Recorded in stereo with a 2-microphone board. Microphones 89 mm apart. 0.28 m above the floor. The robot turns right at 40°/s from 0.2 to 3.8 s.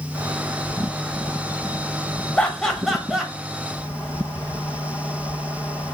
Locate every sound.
2.4 s laughter: 10° left (ahead or behind), 1.0 m; by 3.3 s 5° right (ahead or behind), 1.0 m